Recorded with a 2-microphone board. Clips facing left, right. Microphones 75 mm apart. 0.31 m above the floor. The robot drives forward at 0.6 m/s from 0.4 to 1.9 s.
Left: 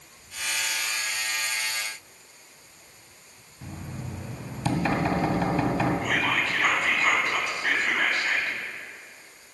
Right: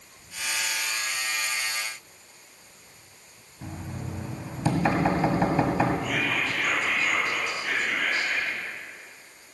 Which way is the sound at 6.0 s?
60° left (ahead or behind).